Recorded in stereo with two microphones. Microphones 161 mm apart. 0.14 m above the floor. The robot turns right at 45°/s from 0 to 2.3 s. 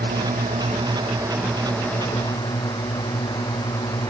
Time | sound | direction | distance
0.0 | a drone | 75° right | ?